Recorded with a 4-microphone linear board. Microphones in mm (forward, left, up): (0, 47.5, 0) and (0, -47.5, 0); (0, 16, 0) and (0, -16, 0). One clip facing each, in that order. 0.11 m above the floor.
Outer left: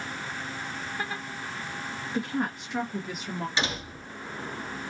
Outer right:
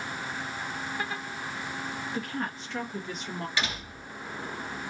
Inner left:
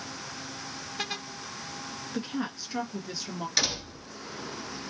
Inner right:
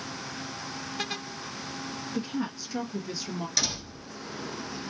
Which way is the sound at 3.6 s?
20° left (ahead or behind).